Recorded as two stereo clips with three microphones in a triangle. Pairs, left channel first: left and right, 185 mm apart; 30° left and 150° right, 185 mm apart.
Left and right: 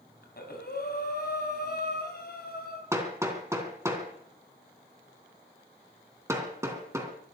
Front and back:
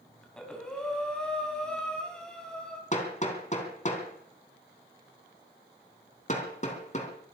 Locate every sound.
0.2 s breathing: 115° left, 3.5 m
2.9 s hammering: 15° right, 3 m